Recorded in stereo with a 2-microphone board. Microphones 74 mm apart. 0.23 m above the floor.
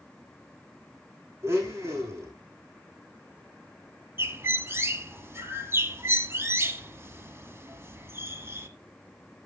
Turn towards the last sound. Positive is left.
turn(degrees=-35)  # may be behind; listen again after turning